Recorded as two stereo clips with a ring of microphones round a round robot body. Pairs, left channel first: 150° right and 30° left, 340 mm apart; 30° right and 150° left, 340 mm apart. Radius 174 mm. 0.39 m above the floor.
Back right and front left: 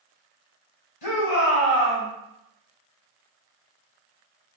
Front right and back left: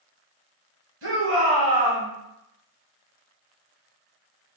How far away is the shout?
About 1.8 m.